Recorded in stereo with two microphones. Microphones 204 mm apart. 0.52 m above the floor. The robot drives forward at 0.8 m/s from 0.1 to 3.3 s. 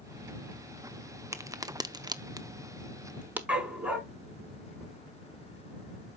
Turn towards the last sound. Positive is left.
turn(degrees=-5)  # may be behind; listen again after turning